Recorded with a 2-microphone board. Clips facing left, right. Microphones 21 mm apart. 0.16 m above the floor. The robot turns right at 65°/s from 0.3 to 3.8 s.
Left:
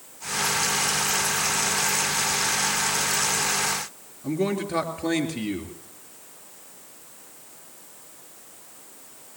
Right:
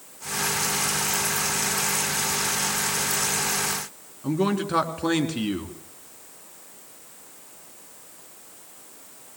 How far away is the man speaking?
About 2 m.